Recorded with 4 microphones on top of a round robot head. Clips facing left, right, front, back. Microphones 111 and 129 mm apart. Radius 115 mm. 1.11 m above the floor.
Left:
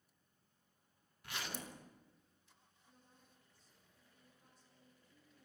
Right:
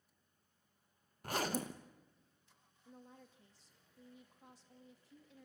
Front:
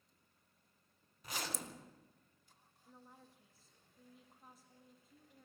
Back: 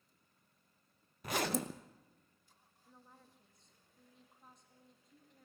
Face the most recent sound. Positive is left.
turn(degrees=-85)